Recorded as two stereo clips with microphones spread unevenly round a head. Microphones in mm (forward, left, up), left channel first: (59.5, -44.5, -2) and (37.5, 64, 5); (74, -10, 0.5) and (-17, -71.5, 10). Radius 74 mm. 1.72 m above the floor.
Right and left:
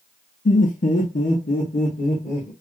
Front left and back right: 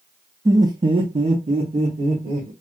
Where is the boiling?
I don't hear boiling.